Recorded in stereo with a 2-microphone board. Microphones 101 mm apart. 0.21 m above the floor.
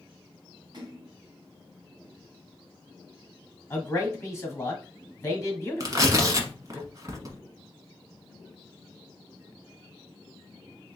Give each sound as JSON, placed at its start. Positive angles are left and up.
{"t": 0.7, "sound": "a splash", "side_deg": -40, "distance_m": 2.5}
{"t": 3.7, "sound": "a man speaking", "side_deg": 25, "distance_m": 1.4}
{"t": 5.8, "sound": "tearing paper", "side_deg": -40, "distance_m": 1.0}